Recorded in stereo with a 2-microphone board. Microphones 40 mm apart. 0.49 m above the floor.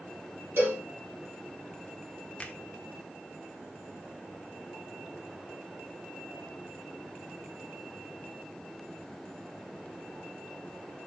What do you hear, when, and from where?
0.6 s a cowbell: 75° right (ahead or behind), 5 m
2.4 s a finger snap: 25° left (ahead or behind), 1.3 m